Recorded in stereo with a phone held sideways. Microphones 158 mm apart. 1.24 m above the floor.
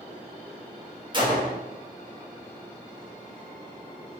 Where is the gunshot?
30° right (ahead or behind), 0.7 m.